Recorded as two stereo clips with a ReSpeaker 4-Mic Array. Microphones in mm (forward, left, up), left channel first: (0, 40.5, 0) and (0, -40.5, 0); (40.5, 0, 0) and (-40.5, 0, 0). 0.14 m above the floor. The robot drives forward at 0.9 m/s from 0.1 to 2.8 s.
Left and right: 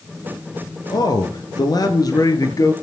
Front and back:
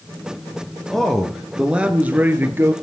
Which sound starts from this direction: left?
A man speaking, at 0.9 s.